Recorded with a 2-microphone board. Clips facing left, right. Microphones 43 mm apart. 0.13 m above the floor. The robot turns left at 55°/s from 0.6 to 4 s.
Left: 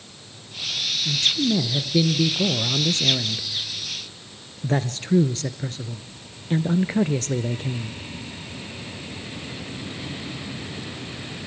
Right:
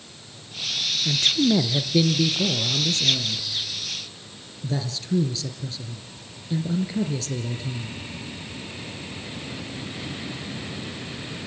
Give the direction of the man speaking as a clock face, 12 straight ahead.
4 o'clock.